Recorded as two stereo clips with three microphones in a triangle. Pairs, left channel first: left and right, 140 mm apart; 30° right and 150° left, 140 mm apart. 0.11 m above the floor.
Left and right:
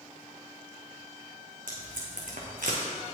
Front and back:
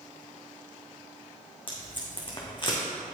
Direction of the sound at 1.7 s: 85° right.